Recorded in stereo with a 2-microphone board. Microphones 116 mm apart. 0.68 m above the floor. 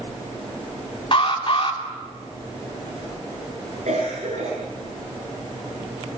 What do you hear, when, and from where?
1.1 s an alarm: 45° left (ahead or behind), 3 m
3.9 s a cough: 75° right (ahead or behind), 9.5 m